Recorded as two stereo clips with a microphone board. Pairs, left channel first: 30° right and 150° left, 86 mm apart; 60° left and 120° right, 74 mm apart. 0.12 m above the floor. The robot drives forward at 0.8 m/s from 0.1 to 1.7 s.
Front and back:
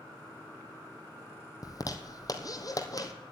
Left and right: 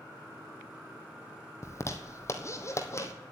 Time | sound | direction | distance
1.6 | a zipper | 15° left | 1.2 m